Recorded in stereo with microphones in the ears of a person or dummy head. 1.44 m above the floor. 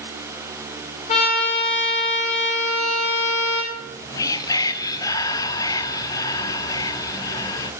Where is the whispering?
20° left (ahead or behind), 0.5 m.